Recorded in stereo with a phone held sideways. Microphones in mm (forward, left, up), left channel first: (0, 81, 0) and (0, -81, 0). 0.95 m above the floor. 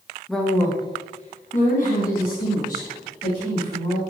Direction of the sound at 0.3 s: Centre (ahead or behind).